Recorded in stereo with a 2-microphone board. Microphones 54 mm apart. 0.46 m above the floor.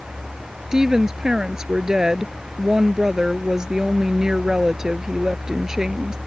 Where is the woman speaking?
10° right (ahead or behind).